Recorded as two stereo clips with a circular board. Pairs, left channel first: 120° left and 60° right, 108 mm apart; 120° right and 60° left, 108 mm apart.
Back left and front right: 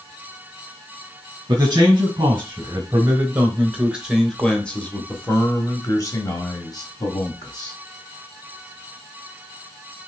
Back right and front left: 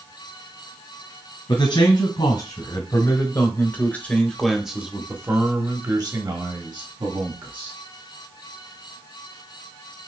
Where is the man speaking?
105° right, 1.7 m; by 7.7 s 80° left, 1.9 m.